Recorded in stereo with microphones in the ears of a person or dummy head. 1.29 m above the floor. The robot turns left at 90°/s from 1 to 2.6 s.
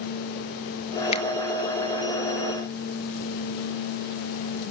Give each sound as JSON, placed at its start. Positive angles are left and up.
{"t": 1.1, "sound": "a finger snap", "side_deg": 40, "distance_m": 1.3}